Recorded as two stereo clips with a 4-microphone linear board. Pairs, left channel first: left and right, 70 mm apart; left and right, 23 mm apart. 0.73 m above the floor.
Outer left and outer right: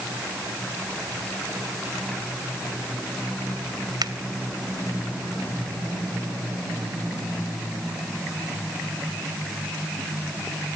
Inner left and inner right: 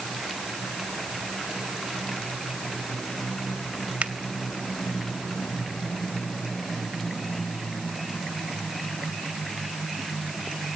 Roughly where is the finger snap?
Right.